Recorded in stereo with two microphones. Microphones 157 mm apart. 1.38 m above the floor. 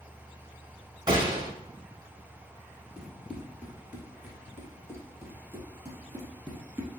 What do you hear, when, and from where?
1.1 s a gunshot: 25° right (ahead or behind), 1.2 m
3.0 s running footsteps: 5° right (ahead or behind), 1.4 m; by 6.9 s 15° right (ahead or behind), 2.5 m